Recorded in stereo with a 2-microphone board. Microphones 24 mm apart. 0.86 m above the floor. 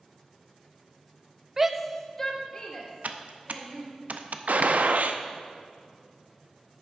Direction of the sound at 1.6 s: 20° right (ahead or behind).